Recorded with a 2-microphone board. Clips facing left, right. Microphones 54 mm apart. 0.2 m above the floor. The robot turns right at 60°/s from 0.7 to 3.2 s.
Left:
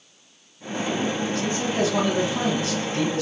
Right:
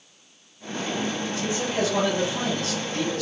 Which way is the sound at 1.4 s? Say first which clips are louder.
Even; 10° right (ahead or behind).